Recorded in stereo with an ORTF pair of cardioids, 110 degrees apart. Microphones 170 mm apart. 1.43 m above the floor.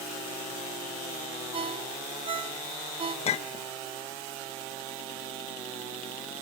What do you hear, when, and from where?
1.5 s a ringtone: 35° right, 1.9 m
3.2 s a clink: 40° left, 1.2 m